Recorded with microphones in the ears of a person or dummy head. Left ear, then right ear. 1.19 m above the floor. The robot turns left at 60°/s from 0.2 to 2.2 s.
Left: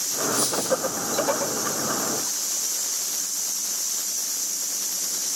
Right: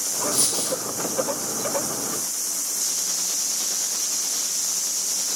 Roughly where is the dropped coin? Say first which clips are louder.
Left 3 dB; right.